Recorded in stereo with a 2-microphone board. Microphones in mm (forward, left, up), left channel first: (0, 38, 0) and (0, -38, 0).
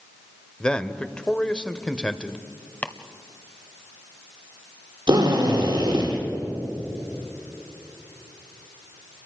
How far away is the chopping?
About 1.1 m.